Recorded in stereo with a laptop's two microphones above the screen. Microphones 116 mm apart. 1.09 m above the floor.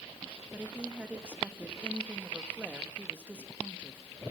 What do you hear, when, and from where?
0.5 s a woman speaking: 15° right (ahead or behind), 1.8 m